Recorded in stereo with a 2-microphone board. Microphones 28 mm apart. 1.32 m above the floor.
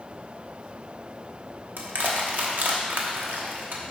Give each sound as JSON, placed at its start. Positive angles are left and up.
{"t": 1.8, "sound": "crushing", "side_deg": -75, "distance_m": 1.1}